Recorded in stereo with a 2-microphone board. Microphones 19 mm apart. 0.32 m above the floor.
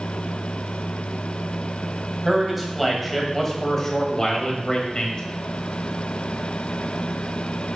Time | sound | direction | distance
2.2 | a man speaking | 5° right (ahead or behind) | 1.9 m